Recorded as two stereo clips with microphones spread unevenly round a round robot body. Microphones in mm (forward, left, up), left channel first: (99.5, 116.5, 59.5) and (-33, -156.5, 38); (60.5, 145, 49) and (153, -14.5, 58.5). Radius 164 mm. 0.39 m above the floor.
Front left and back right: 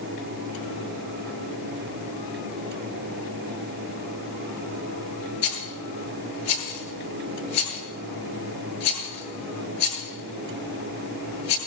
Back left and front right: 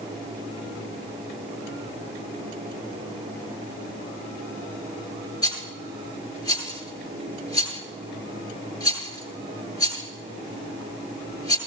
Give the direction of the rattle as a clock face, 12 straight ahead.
10 o'clock.